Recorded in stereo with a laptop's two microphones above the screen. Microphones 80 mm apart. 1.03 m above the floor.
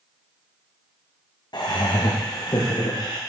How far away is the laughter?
About 0.5 m.